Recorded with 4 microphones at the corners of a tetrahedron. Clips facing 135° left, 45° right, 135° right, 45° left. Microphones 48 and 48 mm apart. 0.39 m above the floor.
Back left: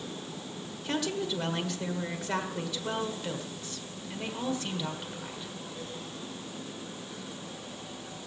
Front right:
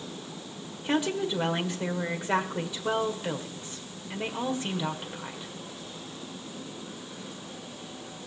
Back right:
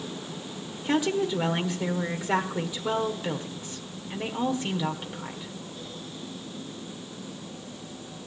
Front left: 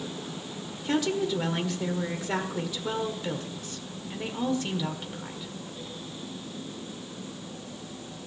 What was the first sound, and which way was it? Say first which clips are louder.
A woman speaking: front right 4 dB, back right 2 dB; 85° right.